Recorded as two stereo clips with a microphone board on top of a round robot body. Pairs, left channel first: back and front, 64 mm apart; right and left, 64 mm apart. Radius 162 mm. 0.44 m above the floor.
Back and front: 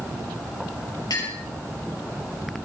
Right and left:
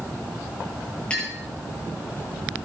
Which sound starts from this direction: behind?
A clink, at 1.1 s.